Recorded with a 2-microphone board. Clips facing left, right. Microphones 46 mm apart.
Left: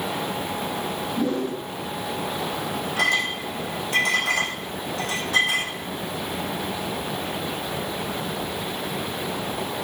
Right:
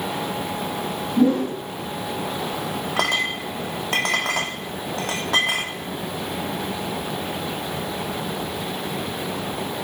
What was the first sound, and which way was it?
A whoosh, 55° right (ahead or behind).